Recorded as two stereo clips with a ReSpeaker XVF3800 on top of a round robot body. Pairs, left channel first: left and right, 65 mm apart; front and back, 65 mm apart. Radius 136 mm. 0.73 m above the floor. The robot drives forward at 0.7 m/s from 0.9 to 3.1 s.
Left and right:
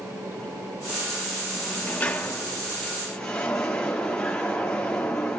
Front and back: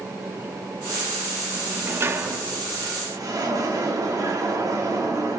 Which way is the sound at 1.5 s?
125° left.